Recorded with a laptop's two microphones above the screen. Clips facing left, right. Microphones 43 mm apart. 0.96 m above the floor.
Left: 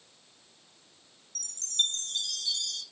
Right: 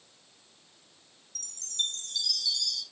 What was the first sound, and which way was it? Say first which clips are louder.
A chime: left 3 dB; 45° left (ahead or behind).